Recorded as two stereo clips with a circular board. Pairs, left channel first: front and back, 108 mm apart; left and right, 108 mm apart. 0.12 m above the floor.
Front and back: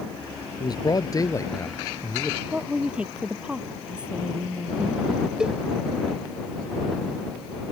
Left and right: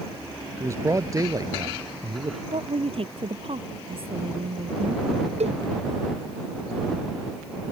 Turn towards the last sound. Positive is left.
turn(degrees=-95)